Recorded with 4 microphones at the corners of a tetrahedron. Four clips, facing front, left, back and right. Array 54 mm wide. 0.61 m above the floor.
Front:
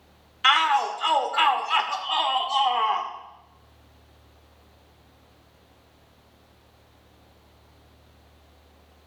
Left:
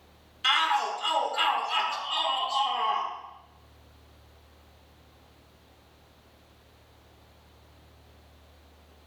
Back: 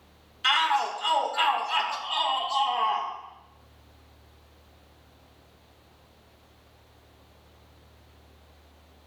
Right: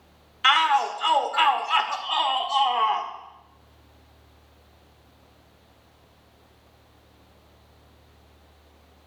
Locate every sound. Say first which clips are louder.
0.4 s a shout: right 5 dB, front 4 dB; 45° right, 1.6 m